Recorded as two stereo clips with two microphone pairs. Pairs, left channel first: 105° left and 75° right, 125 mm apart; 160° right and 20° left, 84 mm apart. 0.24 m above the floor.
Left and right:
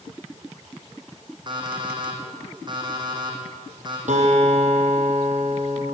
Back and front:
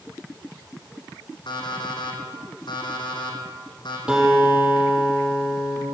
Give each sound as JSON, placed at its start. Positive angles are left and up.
{"t": 1.5, "sound": "an alarm clock", "azimuth_deg": -130, "distance_m": 5.5}
{"t": 4.1, "sound": "a guitar", "azimuth_deg": -60, "distance_m": 7.0}